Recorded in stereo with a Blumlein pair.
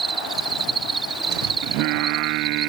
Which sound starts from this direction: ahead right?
Singing, at 1.6 s.